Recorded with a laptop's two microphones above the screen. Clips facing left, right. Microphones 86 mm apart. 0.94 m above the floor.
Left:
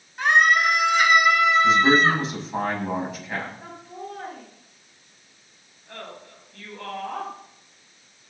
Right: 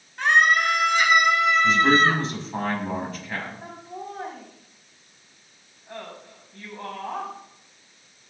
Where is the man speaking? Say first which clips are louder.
Left 1 dB; 10° left (ahead or behind), 8 m.